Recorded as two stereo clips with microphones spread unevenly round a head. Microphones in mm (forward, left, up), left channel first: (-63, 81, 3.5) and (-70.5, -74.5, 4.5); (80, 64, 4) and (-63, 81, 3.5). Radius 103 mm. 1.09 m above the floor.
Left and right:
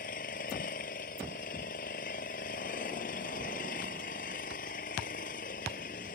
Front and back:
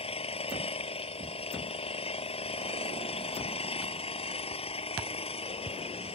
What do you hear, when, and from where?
0.0 s an engine running: 35° left